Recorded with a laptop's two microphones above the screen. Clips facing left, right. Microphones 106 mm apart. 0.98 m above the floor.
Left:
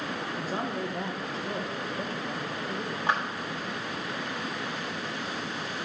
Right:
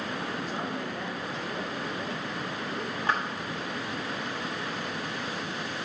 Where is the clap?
15° left (ahead or behind), 1.5 m.